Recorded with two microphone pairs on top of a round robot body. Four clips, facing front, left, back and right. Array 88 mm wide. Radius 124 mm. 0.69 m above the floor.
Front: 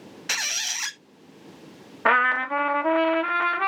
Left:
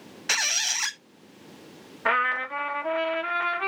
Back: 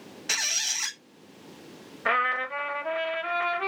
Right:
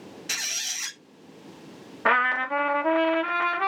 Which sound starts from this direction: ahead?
A trumpet, at 2.0 s.